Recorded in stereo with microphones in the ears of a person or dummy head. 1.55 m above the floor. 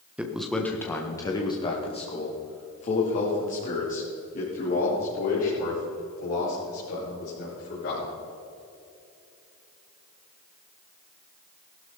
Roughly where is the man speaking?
Centre.